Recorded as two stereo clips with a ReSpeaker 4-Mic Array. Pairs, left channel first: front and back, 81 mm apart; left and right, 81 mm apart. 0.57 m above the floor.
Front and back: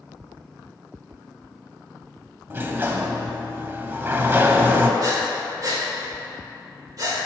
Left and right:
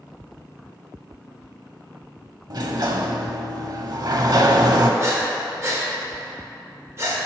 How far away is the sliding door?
About 0.7 m.